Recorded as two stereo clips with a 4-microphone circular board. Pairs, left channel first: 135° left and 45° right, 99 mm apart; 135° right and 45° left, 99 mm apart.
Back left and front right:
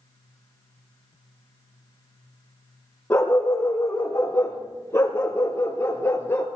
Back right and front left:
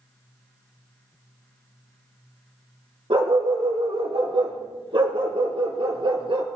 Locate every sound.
3.1 s a dog barking: 70° left, 4.5 m; by 6.5 s 75° left, 2.5 m